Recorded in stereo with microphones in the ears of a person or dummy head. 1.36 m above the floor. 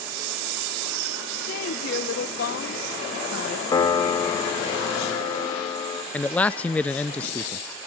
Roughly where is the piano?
Left.